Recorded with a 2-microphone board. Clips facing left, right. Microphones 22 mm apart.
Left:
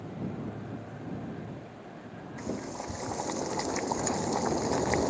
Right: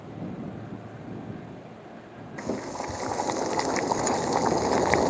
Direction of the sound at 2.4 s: 30° right (ahead or behind).